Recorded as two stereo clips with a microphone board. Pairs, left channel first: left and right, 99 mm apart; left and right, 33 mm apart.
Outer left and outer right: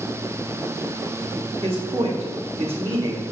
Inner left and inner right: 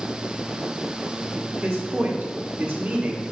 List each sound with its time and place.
1.6 s a man speaking: 60° right (ahead or behind), 1.8 m; by 3.2 s 50° right (ahead or behind), 1.7 m